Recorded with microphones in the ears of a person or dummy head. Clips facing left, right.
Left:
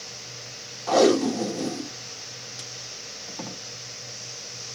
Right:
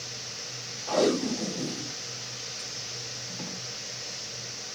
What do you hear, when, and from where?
0.9 s tape being pulled: 65° left (ahead or behind), 1.4 m